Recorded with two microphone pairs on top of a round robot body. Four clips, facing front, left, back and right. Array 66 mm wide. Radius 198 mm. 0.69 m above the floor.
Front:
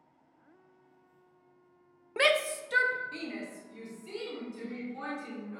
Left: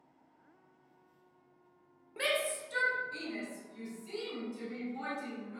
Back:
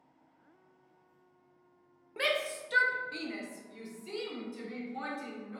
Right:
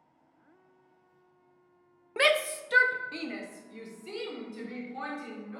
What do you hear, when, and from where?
2.2 s a shout: 50° right, 0.7 m; by 5.6 s 110° right, 3.5 m